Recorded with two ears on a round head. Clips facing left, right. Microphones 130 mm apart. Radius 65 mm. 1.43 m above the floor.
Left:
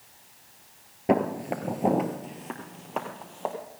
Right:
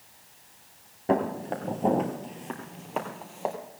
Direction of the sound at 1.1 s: 20° left (ahead or behind).